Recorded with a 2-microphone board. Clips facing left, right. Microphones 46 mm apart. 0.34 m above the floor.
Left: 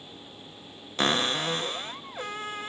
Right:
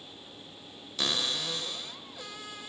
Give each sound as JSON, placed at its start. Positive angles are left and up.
{"t": 1.0, "sound": "a cupboard door", "side_deg": 40, "distance_m": 0.9}